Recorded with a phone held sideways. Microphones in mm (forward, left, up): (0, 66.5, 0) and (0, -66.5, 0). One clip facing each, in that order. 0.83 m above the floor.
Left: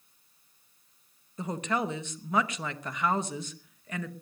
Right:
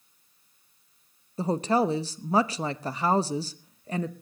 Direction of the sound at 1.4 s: 30° right (ahead or behind).